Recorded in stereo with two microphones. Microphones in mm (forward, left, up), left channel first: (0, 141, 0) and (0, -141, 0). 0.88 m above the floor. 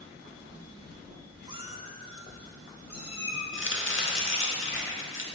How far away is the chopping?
About 0.9 m.